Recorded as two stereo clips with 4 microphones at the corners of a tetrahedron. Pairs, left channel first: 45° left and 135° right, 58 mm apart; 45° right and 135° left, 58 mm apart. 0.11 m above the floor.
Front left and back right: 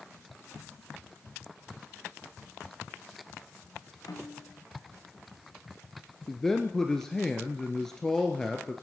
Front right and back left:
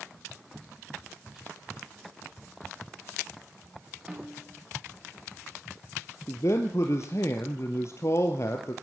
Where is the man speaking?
35° right, 2 m.